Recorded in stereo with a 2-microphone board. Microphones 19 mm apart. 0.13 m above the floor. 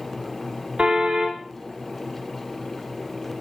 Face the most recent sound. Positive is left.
turn(degrees=-80)